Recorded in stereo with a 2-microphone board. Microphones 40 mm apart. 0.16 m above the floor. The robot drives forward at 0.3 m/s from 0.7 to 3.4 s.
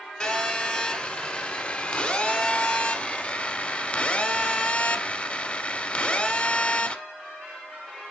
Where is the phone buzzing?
20° left (ahead or behind), 1.1 m; by 7.0 s 30° left (ahead or behind), 0.8 m.